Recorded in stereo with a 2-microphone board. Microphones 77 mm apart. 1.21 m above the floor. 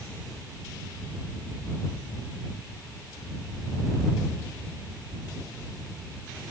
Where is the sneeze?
I don't hear a sneeze.